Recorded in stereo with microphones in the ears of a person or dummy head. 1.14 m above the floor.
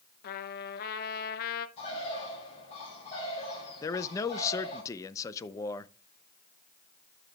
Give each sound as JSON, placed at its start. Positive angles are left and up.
{"t": 0.2, "sound": "a trumpet", "side_deg": 50, "distance_m": 0.8}
{"t": 1.8, "sound": "a bird", "side_deg": 30, "distance_m": 6.0}
{"t": 3.8, "sound": "a man speaking", "side_deg": 15, "distance_m": 0.5}